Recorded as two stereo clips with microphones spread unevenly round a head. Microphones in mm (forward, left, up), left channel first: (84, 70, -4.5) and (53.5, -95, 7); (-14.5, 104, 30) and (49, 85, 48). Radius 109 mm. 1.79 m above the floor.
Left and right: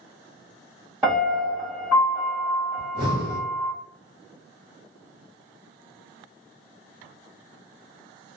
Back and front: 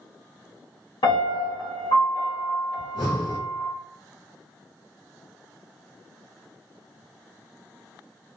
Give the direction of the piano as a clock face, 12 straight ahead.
6 o'clock.